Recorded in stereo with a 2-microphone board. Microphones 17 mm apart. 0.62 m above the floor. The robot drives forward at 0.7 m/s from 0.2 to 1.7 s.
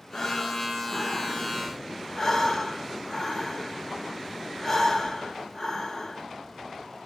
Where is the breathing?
65° left (ahead or behind), 0.9 m; by 6.2 s 35° left (ahead or behind), 1.3 m.